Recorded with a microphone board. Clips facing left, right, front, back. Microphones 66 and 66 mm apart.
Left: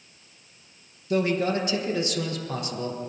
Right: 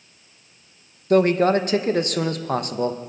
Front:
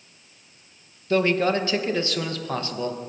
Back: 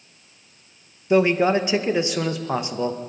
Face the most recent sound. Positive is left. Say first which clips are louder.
# right 7 dB, back 3 dB
turn(degrees=-110)